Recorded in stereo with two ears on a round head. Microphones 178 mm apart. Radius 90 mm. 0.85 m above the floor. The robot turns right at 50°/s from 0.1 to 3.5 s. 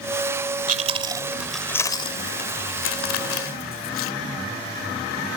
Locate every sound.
0.7 s chewing: 40° right (ahead or behind); by 4.1 s 80° left